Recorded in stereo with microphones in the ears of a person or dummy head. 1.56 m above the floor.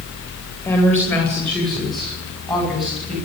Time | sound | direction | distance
0.7 | a woman speaking | 15° left (ahead or behind) | 8.5 m